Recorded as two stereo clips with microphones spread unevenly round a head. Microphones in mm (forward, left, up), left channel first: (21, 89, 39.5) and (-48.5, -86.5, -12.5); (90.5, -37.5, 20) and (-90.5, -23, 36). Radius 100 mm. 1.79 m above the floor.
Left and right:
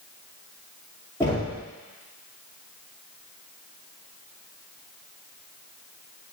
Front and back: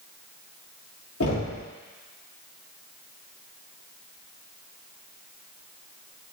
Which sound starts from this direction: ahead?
Knocking, at 1.2 s.